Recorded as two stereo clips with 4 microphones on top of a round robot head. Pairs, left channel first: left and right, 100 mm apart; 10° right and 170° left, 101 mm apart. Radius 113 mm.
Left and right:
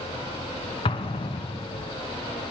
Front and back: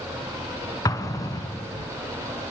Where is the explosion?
45° left, 2.5 m.